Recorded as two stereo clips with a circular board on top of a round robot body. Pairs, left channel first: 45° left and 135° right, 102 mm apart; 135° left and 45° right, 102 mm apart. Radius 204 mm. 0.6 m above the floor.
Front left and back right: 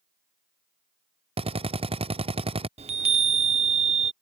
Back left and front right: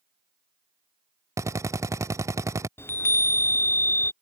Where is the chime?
155° right.